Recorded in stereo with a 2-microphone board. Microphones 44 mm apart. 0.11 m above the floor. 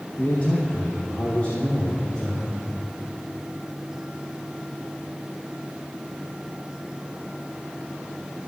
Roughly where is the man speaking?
Left.